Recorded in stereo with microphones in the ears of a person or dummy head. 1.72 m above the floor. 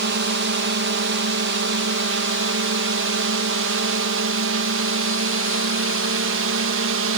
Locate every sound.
0.0 s a drone: 55° right (ahead or behind); by 7.2 s 65° right (ahead or behind)